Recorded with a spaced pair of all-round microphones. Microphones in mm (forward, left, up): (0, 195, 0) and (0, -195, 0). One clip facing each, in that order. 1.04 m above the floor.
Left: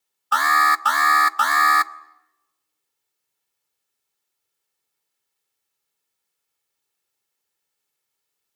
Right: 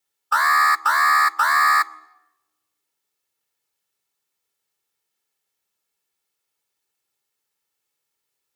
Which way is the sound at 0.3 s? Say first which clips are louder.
Left 1 dB; 50° left (ahead or behind).